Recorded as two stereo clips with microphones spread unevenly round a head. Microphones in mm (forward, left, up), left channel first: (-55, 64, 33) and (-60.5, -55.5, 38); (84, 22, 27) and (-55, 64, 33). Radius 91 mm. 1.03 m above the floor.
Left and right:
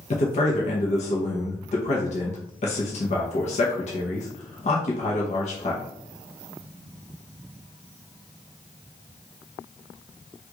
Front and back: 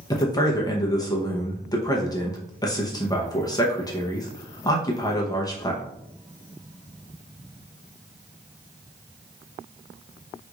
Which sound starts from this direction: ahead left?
A man speaking, at 0.1 s.